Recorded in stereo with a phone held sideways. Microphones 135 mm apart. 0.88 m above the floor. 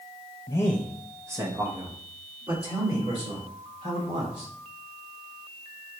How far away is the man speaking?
About 0.5 m.